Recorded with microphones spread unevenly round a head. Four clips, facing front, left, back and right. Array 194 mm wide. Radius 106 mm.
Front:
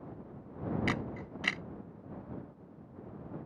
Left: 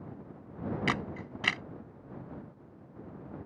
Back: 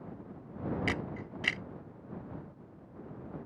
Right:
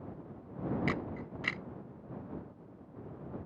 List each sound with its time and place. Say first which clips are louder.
0.9 s a camera shutter: left 2 dB, even; 80° left